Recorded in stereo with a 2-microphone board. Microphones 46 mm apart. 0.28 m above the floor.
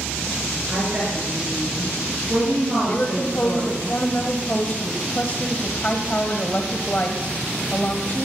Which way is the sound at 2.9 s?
35° left (ahead or behind).